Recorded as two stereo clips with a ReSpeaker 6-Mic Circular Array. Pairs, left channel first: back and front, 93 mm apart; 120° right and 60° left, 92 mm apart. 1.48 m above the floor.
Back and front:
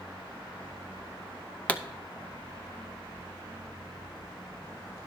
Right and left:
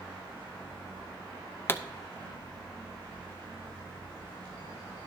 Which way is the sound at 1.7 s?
130° right.